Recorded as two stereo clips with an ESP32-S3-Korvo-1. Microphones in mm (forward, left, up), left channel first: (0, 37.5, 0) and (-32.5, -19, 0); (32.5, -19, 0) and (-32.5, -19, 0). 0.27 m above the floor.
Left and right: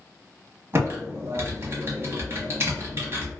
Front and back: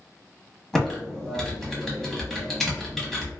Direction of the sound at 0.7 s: 80° right.